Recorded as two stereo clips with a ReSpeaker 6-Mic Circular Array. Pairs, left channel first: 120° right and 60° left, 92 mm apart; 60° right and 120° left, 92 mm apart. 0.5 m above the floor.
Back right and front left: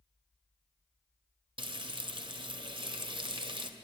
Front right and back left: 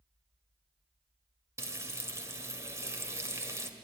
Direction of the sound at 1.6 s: 65° left.